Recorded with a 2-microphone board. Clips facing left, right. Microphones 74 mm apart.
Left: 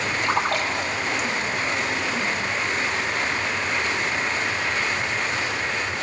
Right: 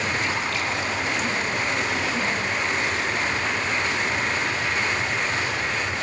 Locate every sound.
0.2 s a splash: 55° left (ahead or behind), 2 m